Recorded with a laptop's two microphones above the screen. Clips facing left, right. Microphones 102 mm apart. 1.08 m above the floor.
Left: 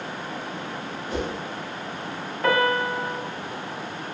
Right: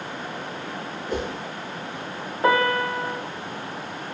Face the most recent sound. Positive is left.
turn(degrees=-25)  # may be behind; listen again after turning